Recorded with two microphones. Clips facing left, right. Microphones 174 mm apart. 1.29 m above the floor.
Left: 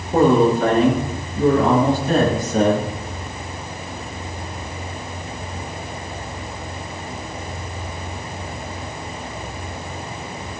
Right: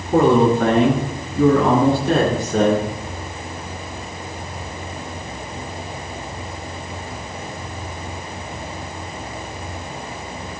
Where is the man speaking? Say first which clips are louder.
Even; 70° right (ahead or behind), 10 m; by 2.9 s 75° right (ahead or behind), 11.5 m.